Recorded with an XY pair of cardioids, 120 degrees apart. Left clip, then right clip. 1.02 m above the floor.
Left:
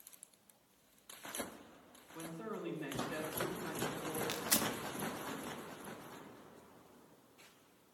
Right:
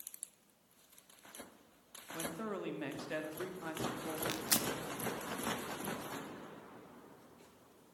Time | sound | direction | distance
2.1 | a man speaking | 60° right | 2 m
4.3 | tearing paper | 5° right | 0.7 m